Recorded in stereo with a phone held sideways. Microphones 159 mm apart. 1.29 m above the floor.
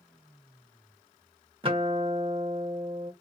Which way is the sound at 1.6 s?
35° right (ahead or behind).